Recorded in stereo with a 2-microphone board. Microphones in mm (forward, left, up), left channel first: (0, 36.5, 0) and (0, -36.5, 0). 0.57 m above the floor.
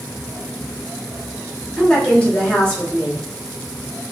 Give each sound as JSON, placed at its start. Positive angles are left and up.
{"t": 1.8, "sound": "a woman speaking", "side_deg": 15, "distance_m": 1.9}